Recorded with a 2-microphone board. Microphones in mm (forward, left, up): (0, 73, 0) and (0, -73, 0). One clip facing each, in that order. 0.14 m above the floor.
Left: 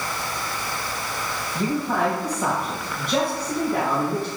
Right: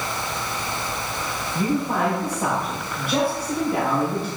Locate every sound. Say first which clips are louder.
1.6 s a man speaking: right 1 dB; 5° right (ahead or behind), 4 m